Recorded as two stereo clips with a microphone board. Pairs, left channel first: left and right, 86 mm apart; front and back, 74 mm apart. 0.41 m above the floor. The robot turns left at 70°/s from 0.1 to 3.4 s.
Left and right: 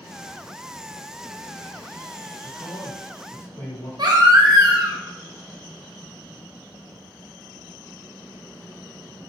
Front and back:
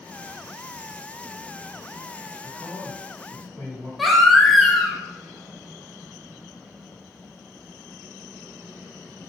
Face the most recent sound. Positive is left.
turn(degrees=-90)